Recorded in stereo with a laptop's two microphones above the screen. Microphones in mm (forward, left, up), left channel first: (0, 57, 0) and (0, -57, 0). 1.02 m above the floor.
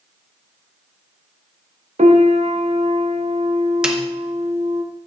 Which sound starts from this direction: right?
A piano, at 2.0 s.